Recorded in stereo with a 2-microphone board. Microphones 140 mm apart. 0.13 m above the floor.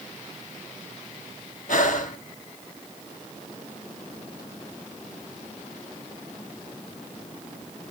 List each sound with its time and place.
1.7 s breathing: 65° left (ahead or behind), 0.9 m